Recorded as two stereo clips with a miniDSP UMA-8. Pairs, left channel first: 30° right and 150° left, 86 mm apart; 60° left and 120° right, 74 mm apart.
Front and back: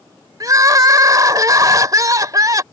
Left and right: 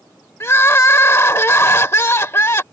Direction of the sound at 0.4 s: 110° left.